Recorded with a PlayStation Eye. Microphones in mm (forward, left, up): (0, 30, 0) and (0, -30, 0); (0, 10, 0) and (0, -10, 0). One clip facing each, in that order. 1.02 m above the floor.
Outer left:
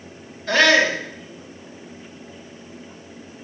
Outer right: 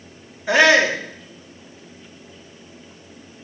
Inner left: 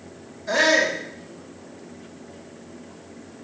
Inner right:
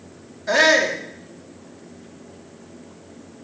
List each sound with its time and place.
0.5 s a shout: 15° right (ahead or behind), 2.5 m